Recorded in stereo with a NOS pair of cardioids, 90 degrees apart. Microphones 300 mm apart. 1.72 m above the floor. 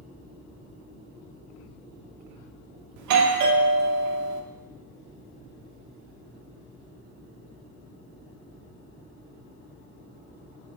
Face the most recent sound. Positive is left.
turn(degrees=-70)